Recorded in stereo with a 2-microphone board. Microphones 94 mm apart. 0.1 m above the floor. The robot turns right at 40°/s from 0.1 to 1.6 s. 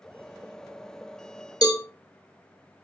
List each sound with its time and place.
1.6 s a cowbell: 45° left (ahead or behind), 0.7 m